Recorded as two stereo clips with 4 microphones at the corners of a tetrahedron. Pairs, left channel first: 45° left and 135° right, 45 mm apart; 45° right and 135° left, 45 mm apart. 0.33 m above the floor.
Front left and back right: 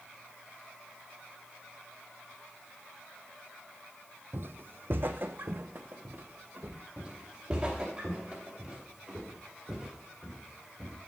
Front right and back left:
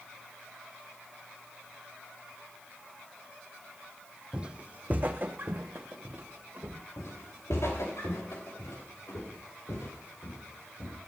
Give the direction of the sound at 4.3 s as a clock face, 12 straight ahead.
5 o'clock.